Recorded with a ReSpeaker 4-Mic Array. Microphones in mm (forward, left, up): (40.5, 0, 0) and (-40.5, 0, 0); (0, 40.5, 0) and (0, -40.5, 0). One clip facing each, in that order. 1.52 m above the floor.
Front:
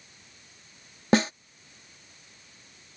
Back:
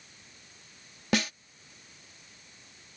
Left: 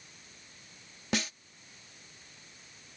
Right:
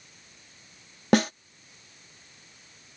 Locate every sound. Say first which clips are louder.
1.1 s a snare drum: front 6 dB, right 12 dB; 55° right